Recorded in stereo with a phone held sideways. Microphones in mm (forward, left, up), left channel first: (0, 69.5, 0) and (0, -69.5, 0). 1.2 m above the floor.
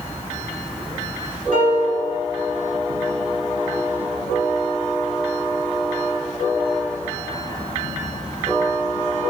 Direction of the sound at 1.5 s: 70° right (ahead or behind).